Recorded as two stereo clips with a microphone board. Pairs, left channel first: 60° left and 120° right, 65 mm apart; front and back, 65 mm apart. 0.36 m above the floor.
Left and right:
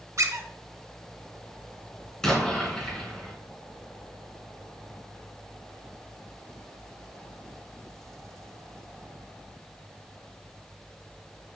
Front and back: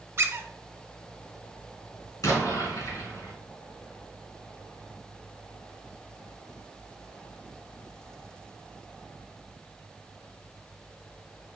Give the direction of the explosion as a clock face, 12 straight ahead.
1 o'clock.